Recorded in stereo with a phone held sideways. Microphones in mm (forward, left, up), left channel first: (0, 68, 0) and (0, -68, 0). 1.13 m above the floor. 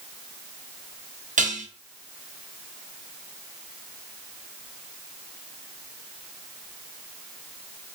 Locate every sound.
1.4 s dishes clattering: 70° right (ahead or behind), 0.7 m